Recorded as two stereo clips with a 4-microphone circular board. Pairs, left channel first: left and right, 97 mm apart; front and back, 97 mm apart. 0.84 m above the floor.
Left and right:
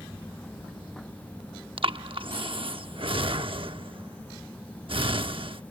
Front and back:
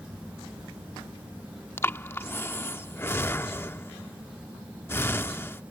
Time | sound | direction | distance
1.8 | breathing | 65° right | ?